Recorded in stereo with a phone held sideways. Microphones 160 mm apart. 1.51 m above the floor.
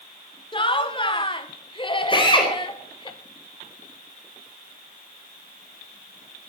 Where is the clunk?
No clunk in this recording.